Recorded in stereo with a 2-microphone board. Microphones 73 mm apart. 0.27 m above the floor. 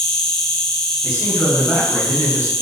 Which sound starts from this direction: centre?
An insect, at 0.0 s.